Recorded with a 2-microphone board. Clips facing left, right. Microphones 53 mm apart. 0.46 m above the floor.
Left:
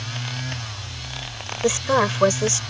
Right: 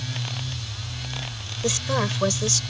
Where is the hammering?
No hammering in this recording.